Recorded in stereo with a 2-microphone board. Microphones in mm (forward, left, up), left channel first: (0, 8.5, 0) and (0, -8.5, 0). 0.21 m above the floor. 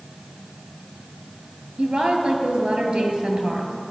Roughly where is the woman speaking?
Right.